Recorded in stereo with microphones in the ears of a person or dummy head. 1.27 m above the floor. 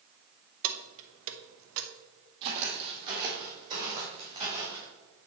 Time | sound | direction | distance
0.6 | keys jangling | 75° right (ahead or behind) | 0.9 m
2.4 | footsteps | 30° right (ahead or behind) | 1.8 m